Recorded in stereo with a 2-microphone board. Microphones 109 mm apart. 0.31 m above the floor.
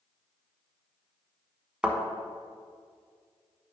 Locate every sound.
1.8 s a thud: 10° right (ahead or behind), 1.2 m